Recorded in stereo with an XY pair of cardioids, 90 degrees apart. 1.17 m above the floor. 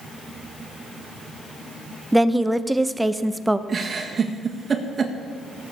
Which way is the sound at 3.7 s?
40° right.